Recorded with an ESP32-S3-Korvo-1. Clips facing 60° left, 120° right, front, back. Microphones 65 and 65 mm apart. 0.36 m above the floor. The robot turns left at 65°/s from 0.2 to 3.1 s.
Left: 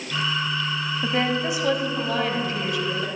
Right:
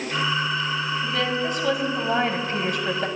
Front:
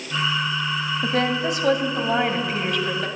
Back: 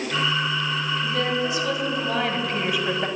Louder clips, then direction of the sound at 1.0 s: Left 4 dB, front 4 dB; 15° left.